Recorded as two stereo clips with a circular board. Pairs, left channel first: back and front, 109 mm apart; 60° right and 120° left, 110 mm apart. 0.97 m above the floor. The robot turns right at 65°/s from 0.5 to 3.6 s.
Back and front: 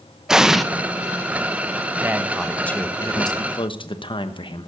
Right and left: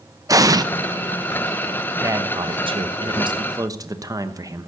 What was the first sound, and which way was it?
An explosion, 80° left.